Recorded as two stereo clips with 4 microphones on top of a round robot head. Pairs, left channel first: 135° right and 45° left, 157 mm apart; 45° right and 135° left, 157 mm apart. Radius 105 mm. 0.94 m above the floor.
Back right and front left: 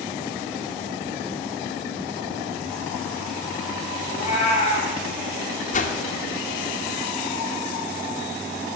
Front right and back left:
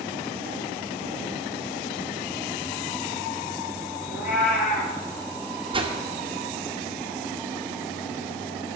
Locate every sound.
4.1 s a cat meowing: 85° right, 3.5 m
5.7 s a whoosh: 170° right, 1.9 m